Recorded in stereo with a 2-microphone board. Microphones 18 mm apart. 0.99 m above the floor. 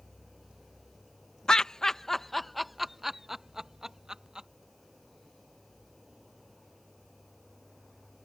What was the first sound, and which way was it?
Laughter, 40° left (ahead or behind).